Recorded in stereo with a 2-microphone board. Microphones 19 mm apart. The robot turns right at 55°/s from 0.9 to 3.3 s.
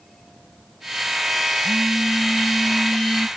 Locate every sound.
1.6 s a phone buzzing: 35° right; by 3.3 s 55° left